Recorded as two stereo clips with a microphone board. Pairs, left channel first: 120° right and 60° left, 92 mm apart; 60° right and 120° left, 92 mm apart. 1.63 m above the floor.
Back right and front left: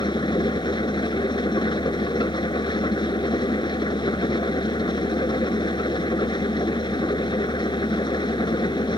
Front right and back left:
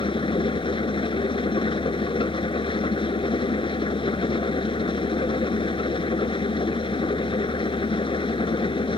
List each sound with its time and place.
0.0 s an engine running: 85° right